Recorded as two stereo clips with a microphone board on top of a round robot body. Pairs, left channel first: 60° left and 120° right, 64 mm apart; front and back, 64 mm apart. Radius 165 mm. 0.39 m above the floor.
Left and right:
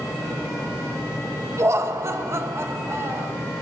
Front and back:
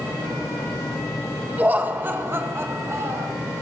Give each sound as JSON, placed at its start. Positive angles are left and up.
{"t": 1.6, "sound": "laughter", "azimuth_deg": -125, "distance_m": 1.9}